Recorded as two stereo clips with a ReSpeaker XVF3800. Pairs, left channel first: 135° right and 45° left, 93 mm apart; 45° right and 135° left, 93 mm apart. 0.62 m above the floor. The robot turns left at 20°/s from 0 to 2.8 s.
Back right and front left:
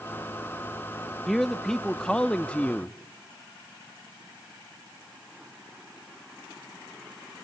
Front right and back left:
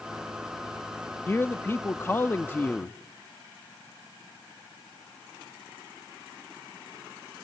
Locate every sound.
1.3 s a man speaking: 50° right, 0.6 m; by 3.0 s 80° right, 0.6 m